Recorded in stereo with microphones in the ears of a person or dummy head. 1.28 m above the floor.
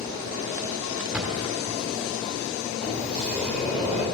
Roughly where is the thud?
Centre.